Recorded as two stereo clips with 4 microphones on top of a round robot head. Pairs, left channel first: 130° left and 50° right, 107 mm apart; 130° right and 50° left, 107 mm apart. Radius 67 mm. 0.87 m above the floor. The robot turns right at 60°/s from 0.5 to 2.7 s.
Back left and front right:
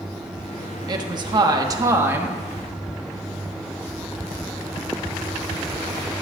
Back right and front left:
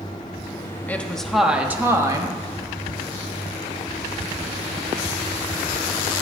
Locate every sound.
0.9 s a woman speaking: 65° right, 1.0 m; by 2.4 s 25° left, 1.0 m